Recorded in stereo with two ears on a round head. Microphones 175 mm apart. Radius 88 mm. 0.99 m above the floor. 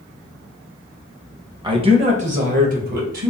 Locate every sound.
1.6 s a man speaking: 25° right (ahead or behind), 0.8 m; by 3.3 s 55° right (ahead or behind), 1.6 m